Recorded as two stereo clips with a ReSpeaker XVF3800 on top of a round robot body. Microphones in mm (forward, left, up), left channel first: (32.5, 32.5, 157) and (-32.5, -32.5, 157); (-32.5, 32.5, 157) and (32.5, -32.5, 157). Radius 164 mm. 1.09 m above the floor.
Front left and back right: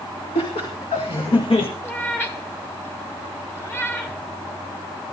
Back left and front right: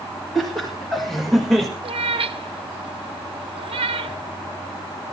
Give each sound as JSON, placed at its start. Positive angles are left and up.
{"t": 0.3, "sound": "laughter", "azimuth_deg": 50, "distance_m": 2.5}
{"t": 1.8, "sound": "a cat meowing", "azimuth_deg": -20, "distance_m": 0.9}